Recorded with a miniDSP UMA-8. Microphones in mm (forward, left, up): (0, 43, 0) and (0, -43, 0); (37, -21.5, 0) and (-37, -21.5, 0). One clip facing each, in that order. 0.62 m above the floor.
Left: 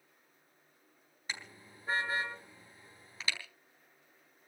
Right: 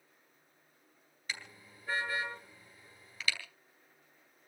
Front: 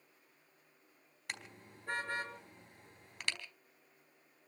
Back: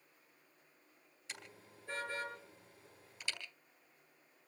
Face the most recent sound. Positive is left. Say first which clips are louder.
# even, front 5 dB
turn(degrees=25)